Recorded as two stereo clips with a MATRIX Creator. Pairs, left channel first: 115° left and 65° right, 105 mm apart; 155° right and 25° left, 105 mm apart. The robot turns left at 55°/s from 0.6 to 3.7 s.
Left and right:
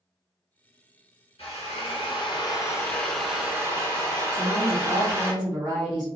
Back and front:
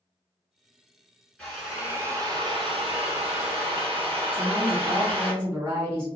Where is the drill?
125° left, 1.3 m; by 5.3 s 5° right, 1.3 m.